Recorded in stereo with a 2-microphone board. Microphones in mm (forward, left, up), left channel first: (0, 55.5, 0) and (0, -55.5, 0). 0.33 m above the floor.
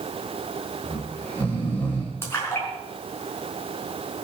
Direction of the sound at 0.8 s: 15° left (ahead or behind).